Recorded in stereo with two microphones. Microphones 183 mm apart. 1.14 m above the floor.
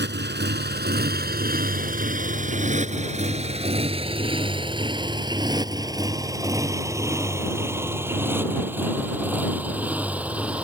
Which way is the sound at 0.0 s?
75° right (ahead or behind).